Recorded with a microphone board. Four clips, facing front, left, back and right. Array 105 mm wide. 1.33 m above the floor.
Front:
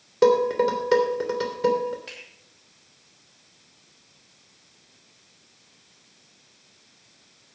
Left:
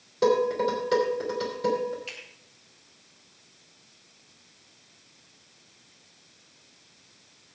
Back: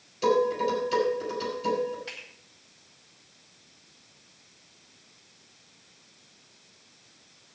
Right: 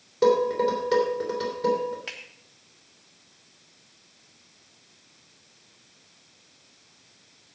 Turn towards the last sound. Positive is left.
turn(degrees=-90)